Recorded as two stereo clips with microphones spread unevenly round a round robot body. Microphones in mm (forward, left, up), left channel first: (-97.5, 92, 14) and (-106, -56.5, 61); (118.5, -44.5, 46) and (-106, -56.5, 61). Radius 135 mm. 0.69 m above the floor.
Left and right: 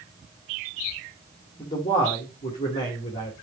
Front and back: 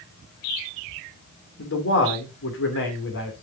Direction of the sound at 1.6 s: 35° left.